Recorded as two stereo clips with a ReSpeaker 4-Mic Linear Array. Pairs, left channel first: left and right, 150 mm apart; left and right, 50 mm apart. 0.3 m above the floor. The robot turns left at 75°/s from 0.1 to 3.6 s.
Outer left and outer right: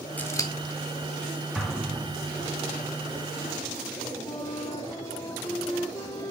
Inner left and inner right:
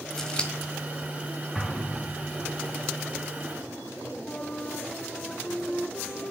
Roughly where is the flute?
Left.